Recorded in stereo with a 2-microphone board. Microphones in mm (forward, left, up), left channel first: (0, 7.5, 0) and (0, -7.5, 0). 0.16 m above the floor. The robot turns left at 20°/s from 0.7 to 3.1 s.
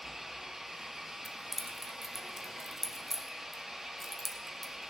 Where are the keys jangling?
20° right (ahead or behind), 0.9 m; by 4.9 s 15° right (ahead or behind), 0.9 m.